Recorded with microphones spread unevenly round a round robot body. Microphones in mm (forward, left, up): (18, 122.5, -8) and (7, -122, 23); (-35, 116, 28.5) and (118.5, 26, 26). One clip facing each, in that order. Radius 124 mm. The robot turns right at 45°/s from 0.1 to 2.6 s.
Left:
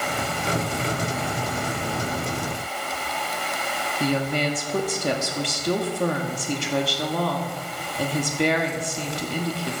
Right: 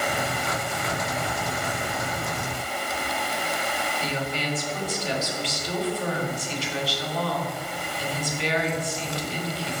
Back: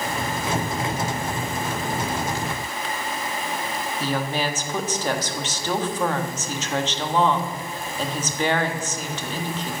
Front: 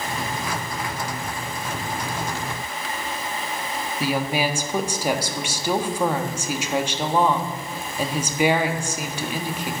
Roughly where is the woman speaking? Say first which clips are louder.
Left 10 dB, front 3 dB; ahead left.